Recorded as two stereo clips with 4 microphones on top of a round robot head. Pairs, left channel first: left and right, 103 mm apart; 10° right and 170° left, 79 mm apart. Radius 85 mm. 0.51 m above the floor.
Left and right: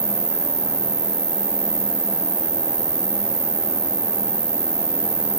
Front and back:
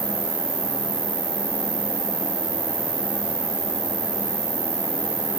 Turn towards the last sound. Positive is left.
turn(degrees=-155)